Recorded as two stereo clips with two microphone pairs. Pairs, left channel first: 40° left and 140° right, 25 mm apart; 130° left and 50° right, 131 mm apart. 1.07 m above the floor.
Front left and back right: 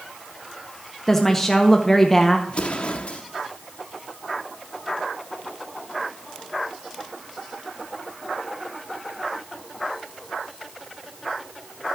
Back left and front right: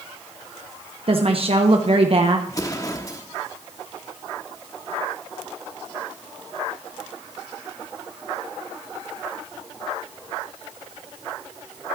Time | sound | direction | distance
1.1 | a woman speaking | 35° right | 0.9 m
2.5 | an explosion | 70° left | 1.1 m